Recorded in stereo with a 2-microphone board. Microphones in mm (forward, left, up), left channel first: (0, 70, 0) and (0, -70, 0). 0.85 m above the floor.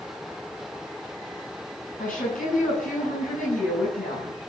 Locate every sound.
2.0 s a woman speaking: 75° left (ahead or behind), 8 m